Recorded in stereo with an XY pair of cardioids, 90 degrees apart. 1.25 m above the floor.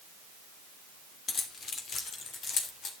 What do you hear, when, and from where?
1.3 s keys jangling: 55° left, 2.5 m; by 2.9 s 65° left, 3 m